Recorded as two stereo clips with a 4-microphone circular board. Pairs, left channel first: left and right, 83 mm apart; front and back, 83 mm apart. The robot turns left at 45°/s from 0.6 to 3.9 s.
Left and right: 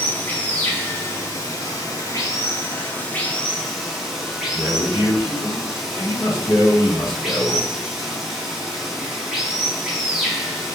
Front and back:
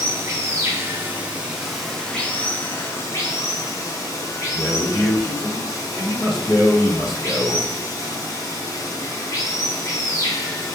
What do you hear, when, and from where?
0.0 s running water: 140° left, 0.7 m; by 10.8 s 5° right, 0.7 m
4.5 s a man speaking: 50° left, 1.1 m